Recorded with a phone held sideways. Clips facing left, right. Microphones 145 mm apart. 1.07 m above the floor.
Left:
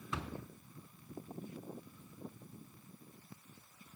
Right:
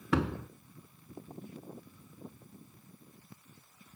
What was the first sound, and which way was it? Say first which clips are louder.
A door slam: right 13 dB; 90° right.